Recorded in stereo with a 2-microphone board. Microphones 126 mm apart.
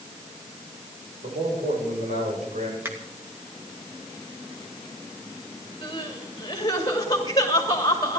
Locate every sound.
1.2 s a man speaking: 85° right, 5.5 m
2.9 s a finger snap: 20° right (ahead or behind), 2.5 m
5.8 s crying: 30° left (ahead or behind), 2.5 m